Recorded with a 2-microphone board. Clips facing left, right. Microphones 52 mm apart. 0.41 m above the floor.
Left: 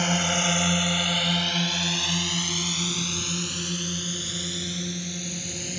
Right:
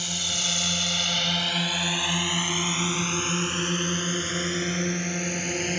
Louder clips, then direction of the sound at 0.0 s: Left 7 dB; 50° left (ahead or behind).